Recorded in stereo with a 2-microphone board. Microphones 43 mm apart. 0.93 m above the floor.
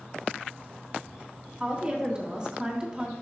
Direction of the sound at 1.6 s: 25° right (ahead or behind).